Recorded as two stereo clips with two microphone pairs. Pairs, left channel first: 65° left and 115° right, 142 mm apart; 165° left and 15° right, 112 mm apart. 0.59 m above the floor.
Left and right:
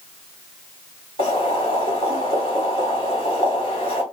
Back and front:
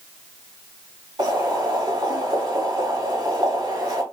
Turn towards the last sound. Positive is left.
turn(degrees=30)